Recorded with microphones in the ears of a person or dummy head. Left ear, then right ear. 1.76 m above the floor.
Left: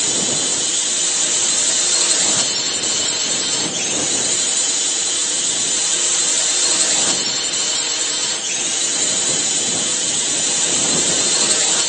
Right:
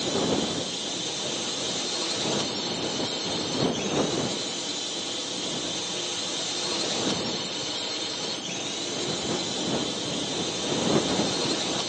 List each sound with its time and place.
0.0 s a drone: 60° left (ahead or behind)